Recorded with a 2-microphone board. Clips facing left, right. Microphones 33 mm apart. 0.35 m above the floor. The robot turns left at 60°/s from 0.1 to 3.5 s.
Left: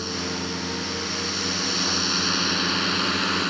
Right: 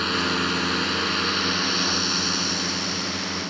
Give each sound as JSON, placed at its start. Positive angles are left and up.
{"t": 0.0, "sound": "a drone", "azimuth_deg": -60}